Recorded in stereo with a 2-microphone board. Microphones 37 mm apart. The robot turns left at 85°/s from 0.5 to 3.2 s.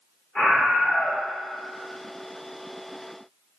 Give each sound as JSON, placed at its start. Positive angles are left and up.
{"t": 0.3, "sound": "a scream", "azimuth_deg": 5, "distance_m": 1.4}